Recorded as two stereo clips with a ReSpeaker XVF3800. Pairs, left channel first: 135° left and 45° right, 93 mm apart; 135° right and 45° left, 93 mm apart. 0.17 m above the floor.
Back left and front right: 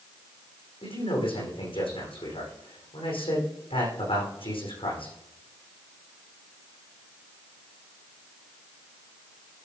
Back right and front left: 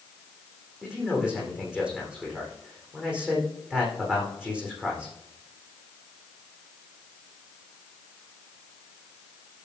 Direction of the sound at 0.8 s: 125° left.